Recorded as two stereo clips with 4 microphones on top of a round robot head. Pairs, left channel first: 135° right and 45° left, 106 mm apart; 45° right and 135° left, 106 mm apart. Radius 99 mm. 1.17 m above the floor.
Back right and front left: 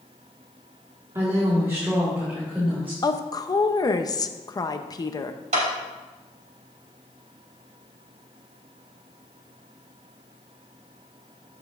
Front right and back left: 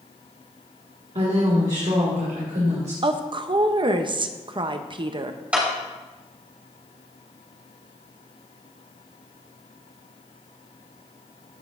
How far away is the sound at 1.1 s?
About 1.7 m.